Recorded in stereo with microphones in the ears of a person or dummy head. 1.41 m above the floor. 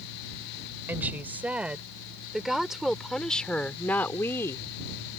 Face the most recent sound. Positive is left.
turn(degrees=15)  # may be behind; listen again after turning